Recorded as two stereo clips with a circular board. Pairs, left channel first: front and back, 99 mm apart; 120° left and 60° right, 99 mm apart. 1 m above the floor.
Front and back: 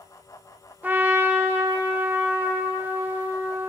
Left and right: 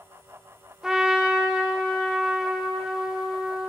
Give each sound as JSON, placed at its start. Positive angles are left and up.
{"t": 0.8, "sound": "a trumpet", "azimuth_deg": -135, "distance_m": 0.6}